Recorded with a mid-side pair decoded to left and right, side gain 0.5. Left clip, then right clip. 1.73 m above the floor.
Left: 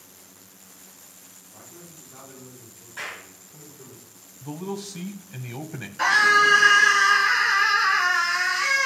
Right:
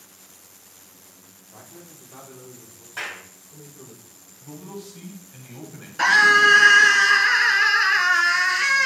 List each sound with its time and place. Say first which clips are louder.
1.5 s a man speaking: right 2 dB; 65° right, 2.5 m; by 4.0 s 60° right, 4 m
3.0 s a clap: right 3 dB; 55° right, 3.5 m
4.4 s a man speaking: left 6 dB; 60° left, 1.0 m
6.0 s a scream: right 3 dB; 40° right, 3.5 m